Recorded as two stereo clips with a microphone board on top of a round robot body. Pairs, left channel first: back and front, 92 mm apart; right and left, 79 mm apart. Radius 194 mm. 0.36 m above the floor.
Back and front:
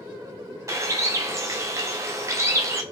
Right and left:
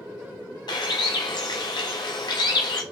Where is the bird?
60° right, 0.6 m.